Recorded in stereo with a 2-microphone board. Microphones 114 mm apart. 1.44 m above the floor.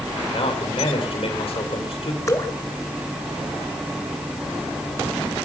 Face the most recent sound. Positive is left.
turn(degrees=30)  # may be behind; listen again after turning